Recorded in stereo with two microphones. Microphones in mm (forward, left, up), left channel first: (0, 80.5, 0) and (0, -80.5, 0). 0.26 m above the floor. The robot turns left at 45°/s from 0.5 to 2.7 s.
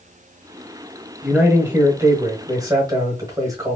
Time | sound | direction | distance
1.2 | a man speaking | 5° right (ahead or behind) | 1.2 m